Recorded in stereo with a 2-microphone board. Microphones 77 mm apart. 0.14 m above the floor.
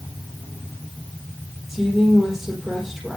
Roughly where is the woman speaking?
Centre.